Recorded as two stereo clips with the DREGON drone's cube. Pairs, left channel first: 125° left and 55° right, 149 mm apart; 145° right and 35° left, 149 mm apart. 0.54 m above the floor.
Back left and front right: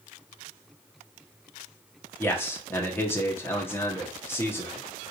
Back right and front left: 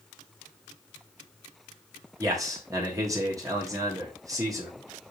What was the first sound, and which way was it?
A man speaking, 70° left.